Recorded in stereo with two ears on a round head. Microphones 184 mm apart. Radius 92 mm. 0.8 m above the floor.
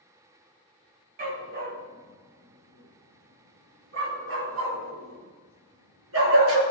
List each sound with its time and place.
1.2 s a dog barking: 45° right (ahead or behind), 2.5 m; by 6.6 s 75° right (ahead or behind), 5 m